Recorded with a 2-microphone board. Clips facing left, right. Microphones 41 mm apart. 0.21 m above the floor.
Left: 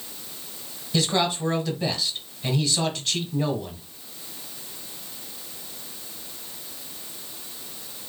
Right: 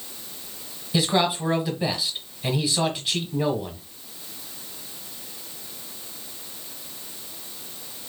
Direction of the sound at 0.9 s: 15° right (ahead or behind).